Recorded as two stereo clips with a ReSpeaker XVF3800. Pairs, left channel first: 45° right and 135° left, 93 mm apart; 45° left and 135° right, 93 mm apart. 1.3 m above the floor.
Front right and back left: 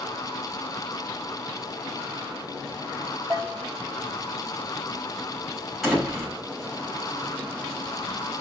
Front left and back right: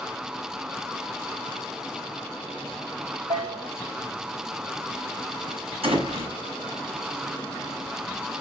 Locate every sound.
3.3 s a bell: 150° right, 6 m
5.8 s a door slam: 135° right, 7 m